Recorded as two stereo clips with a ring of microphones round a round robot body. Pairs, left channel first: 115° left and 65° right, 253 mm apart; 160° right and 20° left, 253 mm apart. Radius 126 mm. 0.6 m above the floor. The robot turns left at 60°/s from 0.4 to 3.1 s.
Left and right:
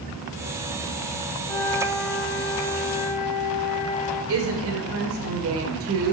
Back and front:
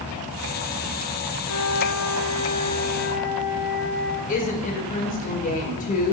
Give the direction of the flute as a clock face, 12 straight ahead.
5 o'clock.